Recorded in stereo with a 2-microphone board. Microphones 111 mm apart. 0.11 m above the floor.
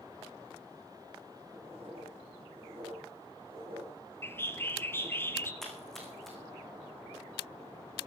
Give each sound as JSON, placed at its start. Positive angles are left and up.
{"t": 1.5, "sound": "writing", "side_deg": -55, "distance_m": 9.5}
{"t": 4.2, "sound": "a bird", "side_deg": 20, "distance_m": 1.4}
{"t": 5.6, "sound": "a splash", "side_deg": 5, "distance_m": 4.5}